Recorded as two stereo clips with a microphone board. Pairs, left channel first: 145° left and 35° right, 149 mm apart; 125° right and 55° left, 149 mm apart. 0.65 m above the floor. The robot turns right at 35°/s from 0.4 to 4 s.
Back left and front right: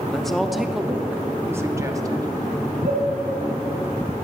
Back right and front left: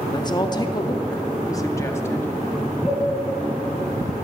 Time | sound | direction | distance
0.1 | a woman speaking | 130° right | 0.7 m
2.8 | a cowbell | 85° right | 4 m